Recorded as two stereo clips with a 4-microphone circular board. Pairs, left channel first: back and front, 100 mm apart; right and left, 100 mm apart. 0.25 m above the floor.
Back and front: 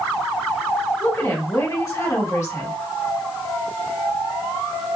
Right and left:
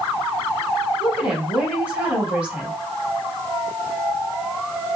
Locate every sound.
1.0 s a woman speaking: 160° left, 1.6 m